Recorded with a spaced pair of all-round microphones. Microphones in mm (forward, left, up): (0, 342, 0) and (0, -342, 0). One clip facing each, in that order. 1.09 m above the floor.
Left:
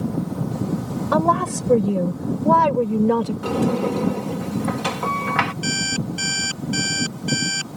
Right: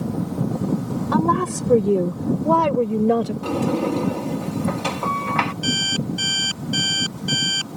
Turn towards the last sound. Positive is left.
turn(degrees=55)  # may be behind; listen again after turning